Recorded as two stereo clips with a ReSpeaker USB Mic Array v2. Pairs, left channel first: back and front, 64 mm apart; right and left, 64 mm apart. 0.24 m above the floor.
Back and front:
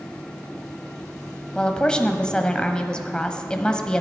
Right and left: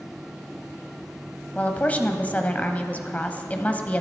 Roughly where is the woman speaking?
Behind right.